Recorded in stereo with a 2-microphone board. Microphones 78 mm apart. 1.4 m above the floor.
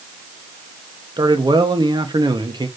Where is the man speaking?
75° right (ahead or behind), 1.5 m.